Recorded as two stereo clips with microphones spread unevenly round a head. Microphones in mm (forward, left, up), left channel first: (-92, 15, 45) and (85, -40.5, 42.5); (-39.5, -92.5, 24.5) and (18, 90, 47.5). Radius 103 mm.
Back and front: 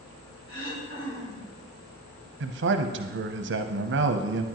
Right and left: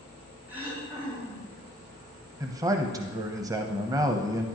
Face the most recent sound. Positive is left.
turn(degrees=-5)